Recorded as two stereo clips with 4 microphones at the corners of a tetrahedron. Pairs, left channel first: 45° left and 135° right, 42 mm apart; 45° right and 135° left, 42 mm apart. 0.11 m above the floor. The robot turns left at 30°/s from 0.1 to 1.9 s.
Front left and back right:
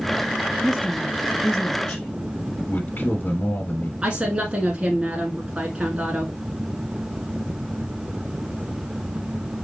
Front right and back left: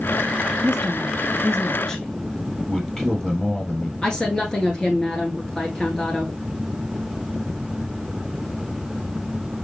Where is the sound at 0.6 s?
35° left, 1.2 m; by 2.1 s straight ahead, 1.2 m.